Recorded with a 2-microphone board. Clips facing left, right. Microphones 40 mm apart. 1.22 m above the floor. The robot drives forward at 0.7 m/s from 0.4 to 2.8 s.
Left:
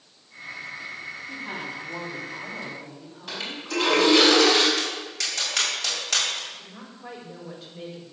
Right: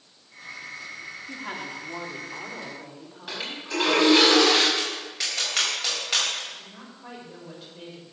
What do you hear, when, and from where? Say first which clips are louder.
1.3 s a woman speaking: even; 55° right (ahead or behind), 3.5 m; by 3.6 s 45° right (ahead or behind), 4.5 m
3.3 s a toilet flushing: left 1 dB; 10° right (ahead or behind), 5.5 m
4.8 s tapping: left 1 dB; 15° right (ahead or behind), 6 m
6.5 s a woman speaking: left 1 dB; centre (ahead or behind), 5 m